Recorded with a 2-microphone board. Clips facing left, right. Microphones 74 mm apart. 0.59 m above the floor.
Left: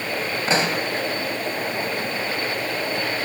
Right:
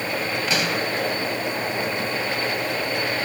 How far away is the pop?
About 2 m.